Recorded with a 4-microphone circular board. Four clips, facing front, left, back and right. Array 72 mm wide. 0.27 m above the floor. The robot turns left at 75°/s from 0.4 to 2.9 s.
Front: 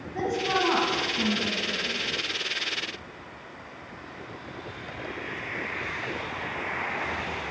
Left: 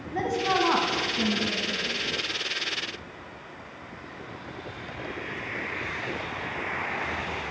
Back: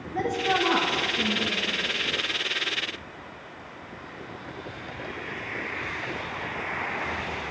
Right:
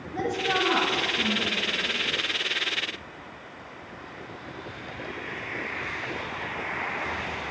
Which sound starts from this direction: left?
A woman speaking, at 0.1 s.